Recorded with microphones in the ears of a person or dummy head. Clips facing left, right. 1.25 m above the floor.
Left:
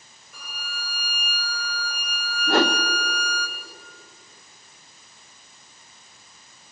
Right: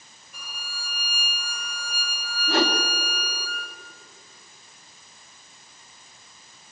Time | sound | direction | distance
0.3 | a violin | 70° left (ahead or behind) | 5 m
2.5 | a whoosh | 45° left (ahead or behind) | 1.4 m